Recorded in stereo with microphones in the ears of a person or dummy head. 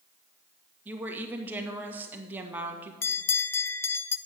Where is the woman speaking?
10° right (ahead or behind), 1.7 m.